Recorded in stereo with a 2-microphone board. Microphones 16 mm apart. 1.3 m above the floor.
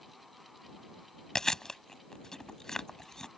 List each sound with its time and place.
1.4 s chewing: 35° left (ahead or behind)